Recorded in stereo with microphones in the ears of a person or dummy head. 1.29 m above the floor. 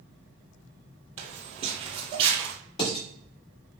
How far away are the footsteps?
About 2 m.